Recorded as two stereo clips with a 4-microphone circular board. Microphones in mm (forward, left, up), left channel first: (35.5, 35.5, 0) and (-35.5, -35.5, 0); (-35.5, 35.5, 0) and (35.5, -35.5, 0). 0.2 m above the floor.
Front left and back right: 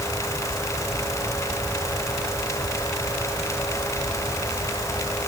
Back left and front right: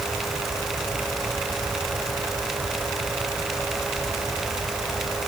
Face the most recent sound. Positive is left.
No sound to turn to.